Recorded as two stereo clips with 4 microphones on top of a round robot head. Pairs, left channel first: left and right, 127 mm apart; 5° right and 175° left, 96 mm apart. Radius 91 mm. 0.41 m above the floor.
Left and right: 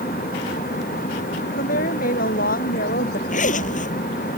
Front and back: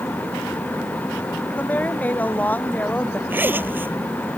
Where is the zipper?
110° left.